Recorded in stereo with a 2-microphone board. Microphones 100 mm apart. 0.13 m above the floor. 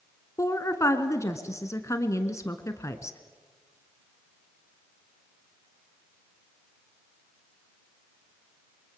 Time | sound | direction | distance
0.4 | a woman speaking | 30° left (ahead or behind) | 1.6 m